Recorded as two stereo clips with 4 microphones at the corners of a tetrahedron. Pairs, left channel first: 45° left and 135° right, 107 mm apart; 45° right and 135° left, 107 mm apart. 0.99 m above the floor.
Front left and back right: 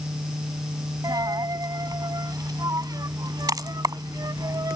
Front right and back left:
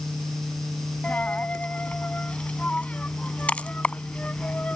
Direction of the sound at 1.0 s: 115° right.